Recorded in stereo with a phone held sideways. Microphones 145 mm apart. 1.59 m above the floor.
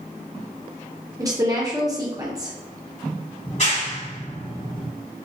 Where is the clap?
50° left (ahead or behind), 1.5 m.